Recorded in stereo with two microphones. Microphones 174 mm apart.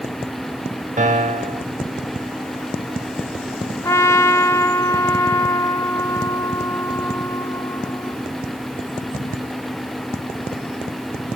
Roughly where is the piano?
Right.